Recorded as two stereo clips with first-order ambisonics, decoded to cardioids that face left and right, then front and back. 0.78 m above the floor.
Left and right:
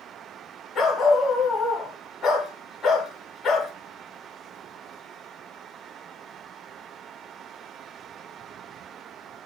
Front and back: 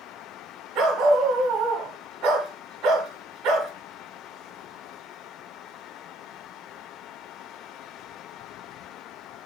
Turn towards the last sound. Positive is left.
turn(degrees=145)